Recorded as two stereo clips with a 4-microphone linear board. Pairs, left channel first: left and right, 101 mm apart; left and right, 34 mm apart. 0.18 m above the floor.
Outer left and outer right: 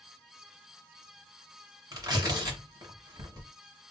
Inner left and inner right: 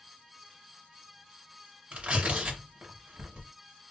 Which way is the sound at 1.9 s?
40° right (ahead or behind).